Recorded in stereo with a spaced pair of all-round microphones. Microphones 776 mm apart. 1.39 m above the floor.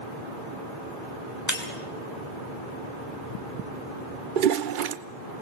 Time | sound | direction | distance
1.5 | breaking glass | 20° left (ahead or behind) | 3.5 m
4.4 | a toilet flushing | 80° right | 0.9 m